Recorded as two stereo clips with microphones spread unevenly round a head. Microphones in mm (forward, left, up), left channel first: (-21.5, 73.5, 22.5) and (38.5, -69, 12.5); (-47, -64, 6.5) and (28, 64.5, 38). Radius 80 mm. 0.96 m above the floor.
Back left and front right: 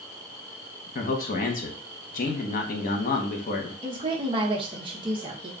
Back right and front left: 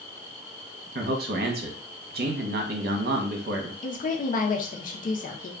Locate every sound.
0.9 s a man speaking: 80° left, 0.8 m
3.8 s a woman speaking: 120° right, 0.7 m